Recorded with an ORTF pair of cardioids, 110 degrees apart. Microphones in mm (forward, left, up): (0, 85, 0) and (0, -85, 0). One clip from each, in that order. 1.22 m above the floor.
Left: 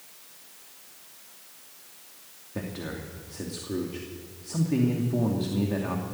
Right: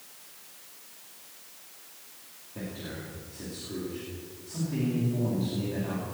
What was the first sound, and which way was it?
A man speaking, 55° left.